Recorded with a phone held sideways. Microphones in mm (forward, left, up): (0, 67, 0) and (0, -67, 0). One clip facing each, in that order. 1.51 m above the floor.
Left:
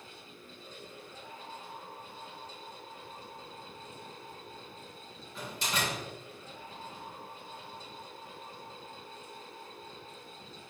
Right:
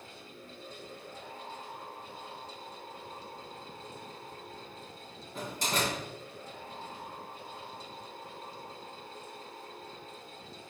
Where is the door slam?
45° right (ahead or behind), 3 m.